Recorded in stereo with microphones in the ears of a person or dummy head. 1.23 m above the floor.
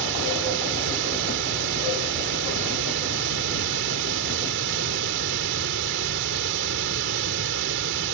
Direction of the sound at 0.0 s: 70° right (ahead or behind).